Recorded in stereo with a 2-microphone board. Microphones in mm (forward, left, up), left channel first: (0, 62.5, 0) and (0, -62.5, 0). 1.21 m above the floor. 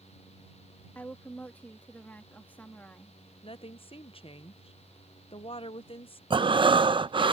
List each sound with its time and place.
0.9 s a woman speaking: 15° left (ahead or behind)
3.4 s a woman speaking: 45° left (ahead or behind)
6.3 s breathing: 40° right (ahead or behind)